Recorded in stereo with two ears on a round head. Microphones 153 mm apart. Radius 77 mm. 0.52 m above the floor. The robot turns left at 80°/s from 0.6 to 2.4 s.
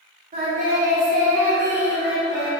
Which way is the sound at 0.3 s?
70° right.